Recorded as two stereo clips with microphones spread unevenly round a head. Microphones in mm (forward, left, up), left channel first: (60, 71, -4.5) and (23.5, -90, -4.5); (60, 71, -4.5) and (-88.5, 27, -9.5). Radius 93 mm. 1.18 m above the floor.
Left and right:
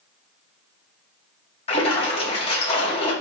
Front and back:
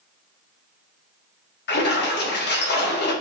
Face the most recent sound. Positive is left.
turn(degrees=25)